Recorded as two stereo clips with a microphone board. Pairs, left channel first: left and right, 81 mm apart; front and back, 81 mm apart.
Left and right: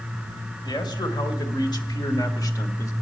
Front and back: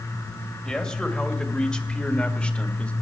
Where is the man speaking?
80° left, 2.5 m; by 2.9 s 70° left, 1.5 m.